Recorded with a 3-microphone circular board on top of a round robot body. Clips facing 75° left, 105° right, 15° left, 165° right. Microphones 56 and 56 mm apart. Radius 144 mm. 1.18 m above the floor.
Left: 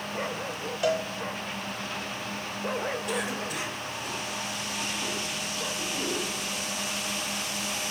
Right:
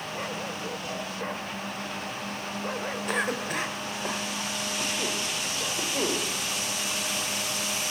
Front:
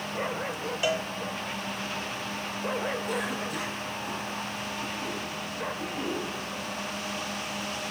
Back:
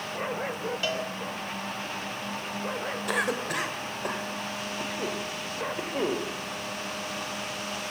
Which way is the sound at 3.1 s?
150° right.